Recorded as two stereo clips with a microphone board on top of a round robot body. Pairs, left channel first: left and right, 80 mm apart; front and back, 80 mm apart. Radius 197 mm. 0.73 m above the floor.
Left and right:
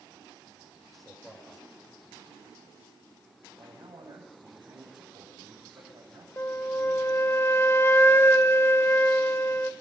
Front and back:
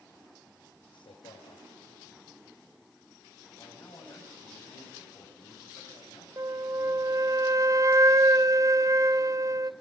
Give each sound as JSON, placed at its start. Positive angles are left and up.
{"t": 0.9, "sound": "a man speaking", "azimuth_deg": 0, "distance_m": 4.0}
{"t": 3.6, "sound": "a man speaking", "azimuth_deg": -45, "distance_m": 6.5}
{"t": 6.4, "sound": "a flute", "azimuth_deg": 145, "distance_m": 1.0}